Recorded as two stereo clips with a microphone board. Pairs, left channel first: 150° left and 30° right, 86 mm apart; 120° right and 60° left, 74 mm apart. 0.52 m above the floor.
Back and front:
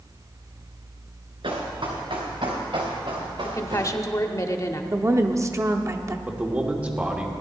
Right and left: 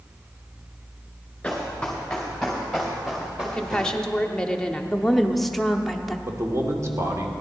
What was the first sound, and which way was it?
Running footsteps, 40° right.